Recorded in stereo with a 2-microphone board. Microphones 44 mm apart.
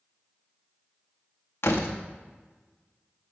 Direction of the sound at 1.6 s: 60° left (ahead or behind).